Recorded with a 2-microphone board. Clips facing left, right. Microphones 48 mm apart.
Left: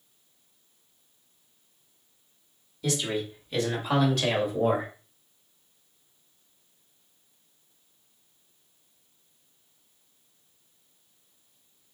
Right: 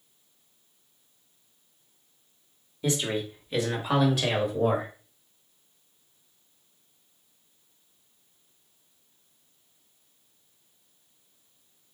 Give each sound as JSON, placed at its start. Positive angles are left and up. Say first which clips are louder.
{"t": 2.8, "sound": "a man speaking", "louder": "right 1 dB", "side_deg": -25, "distance_m": 1.2}